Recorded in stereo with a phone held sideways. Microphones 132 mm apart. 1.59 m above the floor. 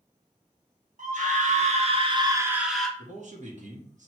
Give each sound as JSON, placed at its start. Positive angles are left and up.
{"t": 1.0, "sound": "a scream", "side_deg": -70, "distance_m": 1.1}
{"t": 3.0, "sound": "a man speaking", "side_deg": -65, "distance_m": 1.0}